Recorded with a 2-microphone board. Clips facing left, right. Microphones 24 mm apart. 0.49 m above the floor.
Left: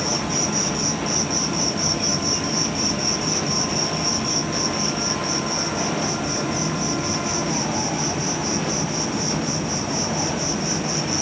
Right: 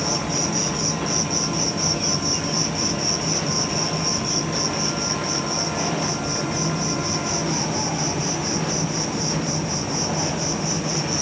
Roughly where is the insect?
Centre.